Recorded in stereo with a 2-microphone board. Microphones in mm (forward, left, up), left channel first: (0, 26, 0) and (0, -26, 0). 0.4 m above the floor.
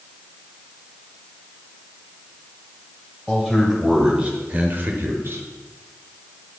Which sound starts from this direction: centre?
A man speaking, at 3.3 s.